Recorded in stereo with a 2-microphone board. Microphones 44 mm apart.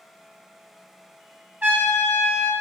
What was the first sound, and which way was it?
A trumpet, 40° right (ahead or behind).